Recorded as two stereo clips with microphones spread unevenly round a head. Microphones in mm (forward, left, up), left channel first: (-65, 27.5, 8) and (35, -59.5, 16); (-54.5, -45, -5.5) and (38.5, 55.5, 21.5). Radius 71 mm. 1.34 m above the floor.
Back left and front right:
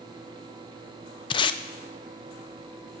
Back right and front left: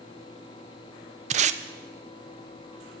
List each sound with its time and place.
1.3 s tape being pulled: 90° left, 0.6 m